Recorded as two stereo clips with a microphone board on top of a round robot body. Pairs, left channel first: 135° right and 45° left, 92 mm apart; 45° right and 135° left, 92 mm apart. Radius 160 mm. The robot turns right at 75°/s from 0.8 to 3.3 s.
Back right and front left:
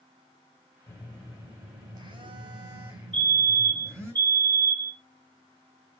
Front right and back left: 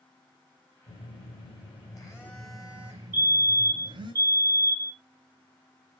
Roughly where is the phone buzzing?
Right.